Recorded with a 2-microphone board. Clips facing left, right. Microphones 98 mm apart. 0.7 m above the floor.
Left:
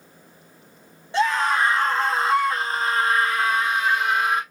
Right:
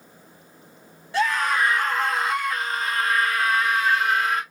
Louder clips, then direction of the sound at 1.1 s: Left 2 dB; 25° left (ahead or behind).